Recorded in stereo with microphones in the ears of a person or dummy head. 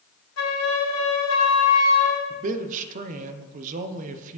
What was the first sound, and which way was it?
A flute, 80° left.